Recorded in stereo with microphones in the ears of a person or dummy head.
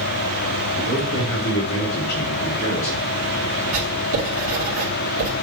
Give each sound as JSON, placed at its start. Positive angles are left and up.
{"t": 0.8, "sound": "a man speaking", "side_deg": 80, "distance_m": 3.5}
{"t": 3.7, "sound": "writing", "side_deg": -75, "distance_m": 2.0}